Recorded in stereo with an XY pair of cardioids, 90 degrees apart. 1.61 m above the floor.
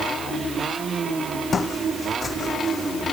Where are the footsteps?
45° left; by 3.0 s 35° left.